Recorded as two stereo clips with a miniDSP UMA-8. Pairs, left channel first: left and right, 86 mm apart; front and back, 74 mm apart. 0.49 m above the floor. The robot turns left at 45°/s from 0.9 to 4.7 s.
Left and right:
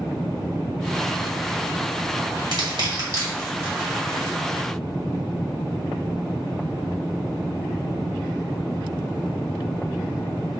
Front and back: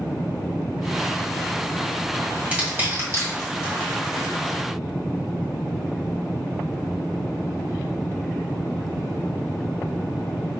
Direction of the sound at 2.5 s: 110° right.